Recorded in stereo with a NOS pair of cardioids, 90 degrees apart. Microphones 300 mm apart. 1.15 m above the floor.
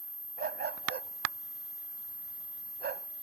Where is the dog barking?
30° right.